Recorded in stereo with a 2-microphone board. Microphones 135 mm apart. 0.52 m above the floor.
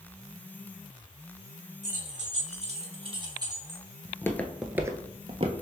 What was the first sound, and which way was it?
Keys jangling, 65° right (ahead or behind).